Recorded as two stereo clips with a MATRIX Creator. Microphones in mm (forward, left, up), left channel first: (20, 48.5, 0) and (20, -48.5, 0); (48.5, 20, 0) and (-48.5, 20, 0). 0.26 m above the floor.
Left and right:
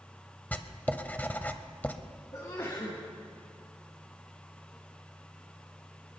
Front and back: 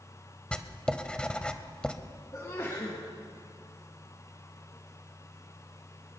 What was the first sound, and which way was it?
Writing, 60° left.